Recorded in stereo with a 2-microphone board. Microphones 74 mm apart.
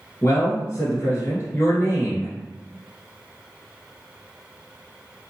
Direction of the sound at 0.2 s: 35° left (ahead or behind).